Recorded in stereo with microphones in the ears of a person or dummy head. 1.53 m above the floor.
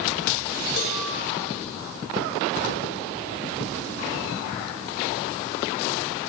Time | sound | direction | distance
0.8 | a cowbell | 45° left (ahead or behind) | 1.4 m